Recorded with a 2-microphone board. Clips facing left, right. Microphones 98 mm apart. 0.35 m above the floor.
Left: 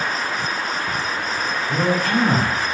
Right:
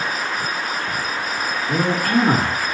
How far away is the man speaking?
About 4.5 m.